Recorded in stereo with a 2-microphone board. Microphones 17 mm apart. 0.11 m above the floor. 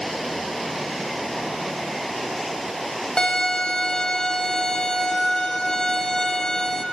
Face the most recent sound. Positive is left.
turn(degrees=55)  # may be behind; listen again after turning